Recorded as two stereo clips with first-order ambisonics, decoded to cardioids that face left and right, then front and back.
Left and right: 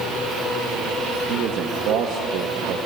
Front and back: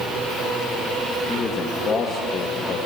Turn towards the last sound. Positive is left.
turn(degrees=-60)